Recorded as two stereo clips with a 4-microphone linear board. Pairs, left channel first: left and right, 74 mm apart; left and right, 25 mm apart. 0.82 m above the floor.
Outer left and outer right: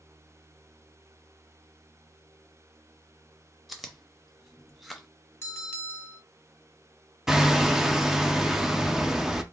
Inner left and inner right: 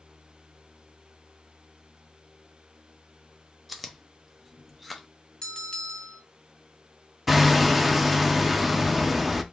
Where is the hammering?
5° right (ahead or behind), 0.6 m.